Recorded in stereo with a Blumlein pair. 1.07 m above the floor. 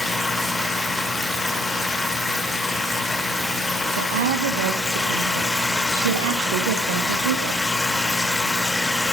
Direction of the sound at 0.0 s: 5° left.